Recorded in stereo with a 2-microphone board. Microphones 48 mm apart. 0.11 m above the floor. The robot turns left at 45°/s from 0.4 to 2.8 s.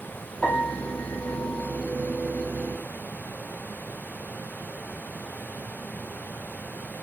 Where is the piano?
Straight behind, 4.5 m; by 1.8 s 120° left, 4.5 m.